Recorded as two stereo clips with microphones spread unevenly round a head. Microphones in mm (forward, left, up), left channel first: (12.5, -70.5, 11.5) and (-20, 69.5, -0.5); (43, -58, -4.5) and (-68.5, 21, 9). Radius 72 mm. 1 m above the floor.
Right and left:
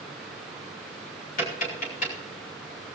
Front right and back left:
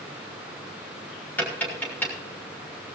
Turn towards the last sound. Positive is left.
turn(degrees=-110)